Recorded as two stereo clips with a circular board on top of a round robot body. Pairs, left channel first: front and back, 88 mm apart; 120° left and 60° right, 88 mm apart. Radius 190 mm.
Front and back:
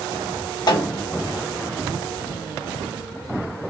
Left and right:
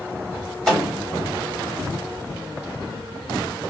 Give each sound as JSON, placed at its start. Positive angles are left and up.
{"t": 0.7, "sound": "a snare drum", "azimuth_deg": 35, "distance_m": 1.4}